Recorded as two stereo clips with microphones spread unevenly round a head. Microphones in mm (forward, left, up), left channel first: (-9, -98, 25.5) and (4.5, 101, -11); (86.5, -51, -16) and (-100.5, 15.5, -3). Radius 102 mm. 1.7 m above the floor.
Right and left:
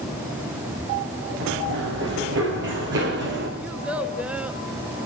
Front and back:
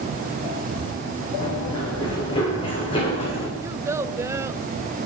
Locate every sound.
1.4 s running footsteps: 55° left, 9.5 m; by 3.5 s 45° left, 7 m
3.6 s a child speaking: 170° right, 1.0 m